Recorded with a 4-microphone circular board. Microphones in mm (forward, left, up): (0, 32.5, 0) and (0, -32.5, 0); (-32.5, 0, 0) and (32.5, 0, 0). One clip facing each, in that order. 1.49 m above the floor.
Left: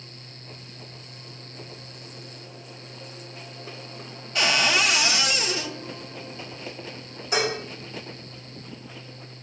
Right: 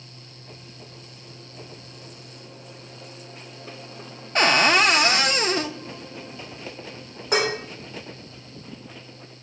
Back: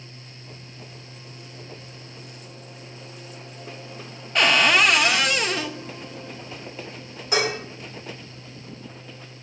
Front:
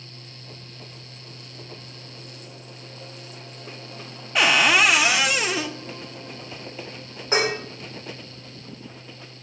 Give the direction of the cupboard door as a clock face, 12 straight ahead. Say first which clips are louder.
Right 5 dB, even; 3 o'clock.